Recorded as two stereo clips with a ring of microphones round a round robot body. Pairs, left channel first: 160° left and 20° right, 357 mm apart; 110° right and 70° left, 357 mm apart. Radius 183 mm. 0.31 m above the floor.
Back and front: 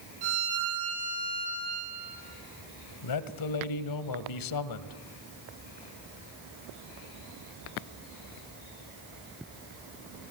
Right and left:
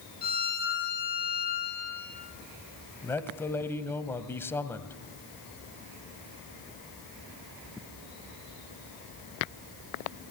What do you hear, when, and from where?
0.2 s a violin: 45° right, 5 m
3.0 s a man speaking: 165° left, 1.7 m